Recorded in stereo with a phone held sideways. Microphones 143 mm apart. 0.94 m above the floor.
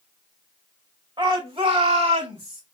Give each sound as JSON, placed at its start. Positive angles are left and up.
{"t": 1.2, "sound": "a shout", "side_deg": -35, "distance_m": 1.8}